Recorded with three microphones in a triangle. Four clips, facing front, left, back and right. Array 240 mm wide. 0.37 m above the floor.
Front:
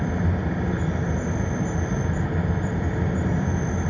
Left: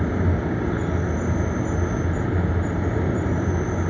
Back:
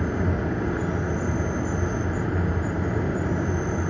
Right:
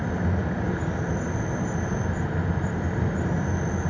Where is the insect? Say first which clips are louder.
Left 4 dB, back 1 dB; 110° left, 5 m.